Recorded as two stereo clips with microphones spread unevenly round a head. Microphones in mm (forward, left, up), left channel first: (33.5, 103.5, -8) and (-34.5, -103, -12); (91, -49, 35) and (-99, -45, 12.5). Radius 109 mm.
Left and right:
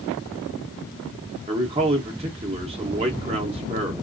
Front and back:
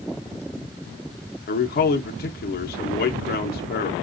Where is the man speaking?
40° right, 0.7 m.